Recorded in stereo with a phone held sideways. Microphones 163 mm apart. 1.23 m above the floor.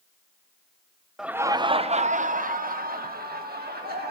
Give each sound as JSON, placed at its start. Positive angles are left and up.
{"t": 1.2, "sound": "laughter", "side_deg": -5, "distance_m": 0.5}